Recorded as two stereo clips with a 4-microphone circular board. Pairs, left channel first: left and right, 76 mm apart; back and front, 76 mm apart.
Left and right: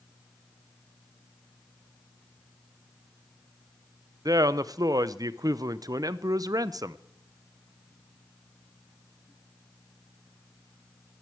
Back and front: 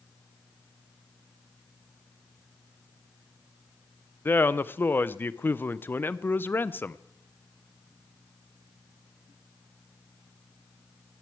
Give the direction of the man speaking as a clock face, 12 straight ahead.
4 o'clock.